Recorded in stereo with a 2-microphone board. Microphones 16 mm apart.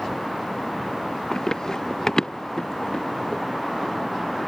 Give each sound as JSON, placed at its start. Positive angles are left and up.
{"t": 1.3, "sound": "running footsteps", "side_deg": 35}